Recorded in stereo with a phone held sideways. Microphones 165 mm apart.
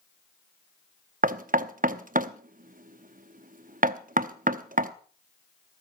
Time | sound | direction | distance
1.2 | knocking | 55° right (ahead or behind) | 0.8 m